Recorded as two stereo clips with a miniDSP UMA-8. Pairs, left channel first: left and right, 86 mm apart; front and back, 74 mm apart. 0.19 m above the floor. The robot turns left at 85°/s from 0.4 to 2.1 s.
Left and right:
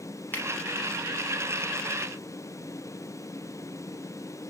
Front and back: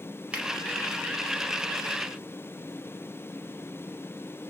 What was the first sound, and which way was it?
A finger snap, 125° left.